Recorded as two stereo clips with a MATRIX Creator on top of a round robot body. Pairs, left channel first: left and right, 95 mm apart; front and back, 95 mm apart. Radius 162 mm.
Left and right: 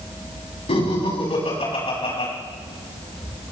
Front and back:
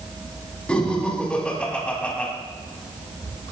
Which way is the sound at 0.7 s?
80° left.